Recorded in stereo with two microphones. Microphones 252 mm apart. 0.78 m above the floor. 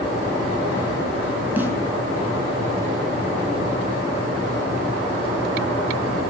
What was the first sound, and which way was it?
A snare drum, 10° right (ahead or behind).